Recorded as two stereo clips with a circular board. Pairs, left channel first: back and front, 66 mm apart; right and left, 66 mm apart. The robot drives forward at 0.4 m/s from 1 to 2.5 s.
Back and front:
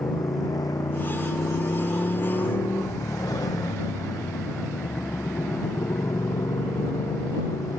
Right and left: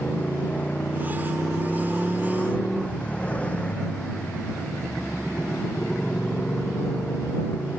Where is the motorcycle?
160° right.